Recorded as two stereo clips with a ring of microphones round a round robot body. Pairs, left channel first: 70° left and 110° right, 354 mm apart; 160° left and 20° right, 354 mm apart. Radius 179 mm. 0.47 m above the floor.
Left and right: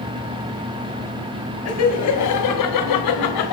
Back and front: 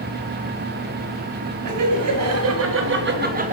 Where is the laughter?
20° left, 3 m; by 3.5 s 50° left, 2.5 m.